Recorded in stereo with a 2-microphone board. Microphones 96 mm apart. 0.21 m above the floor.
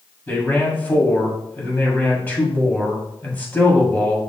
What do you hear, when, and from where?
0.3 s a man speaking: 20° left (ahead or behind), 1.4 m